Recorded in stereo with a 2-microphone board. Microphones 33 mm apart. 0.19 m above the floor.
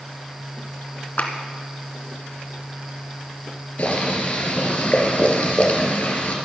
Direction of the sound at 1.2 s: 55° left (ahead or behind).